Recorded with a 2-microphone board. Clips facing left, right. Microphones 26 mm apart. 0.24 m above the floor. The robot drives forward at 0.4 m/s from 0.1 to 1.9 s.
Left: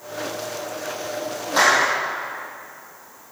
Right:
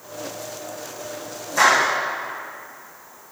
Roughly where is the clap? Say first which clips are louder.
Right 1 dB; left.